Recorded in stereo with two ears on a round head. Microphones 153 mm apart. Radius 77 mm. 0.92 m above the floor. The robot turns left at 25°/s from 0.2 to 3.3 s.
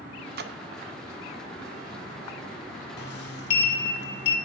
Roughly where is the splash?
Right.